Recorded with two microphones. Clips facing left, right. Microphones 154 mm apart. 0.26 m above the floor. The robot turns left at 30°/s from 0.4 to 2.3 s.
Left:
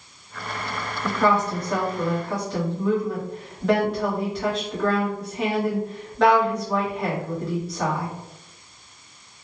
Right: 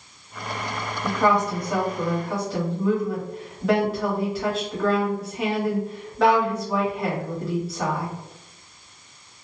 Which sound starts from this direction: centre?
A woman speaking, at 1.0 s.